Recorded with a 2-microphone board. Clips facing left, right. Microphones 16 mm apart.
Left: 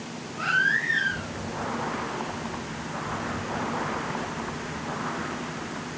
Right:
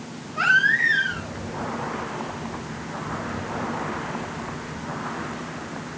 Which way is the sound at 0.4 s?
80° right.